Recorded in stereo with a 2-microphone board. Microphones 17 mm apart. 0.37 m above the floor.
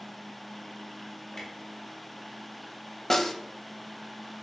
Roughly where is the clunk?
Left.